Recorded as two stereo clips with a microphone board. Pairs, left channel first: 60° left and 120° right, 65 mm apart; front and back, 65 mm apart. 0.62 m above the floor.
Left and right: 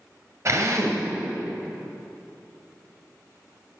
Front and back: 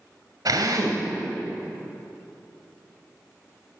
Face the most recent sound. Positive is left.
turn(degrees=-160)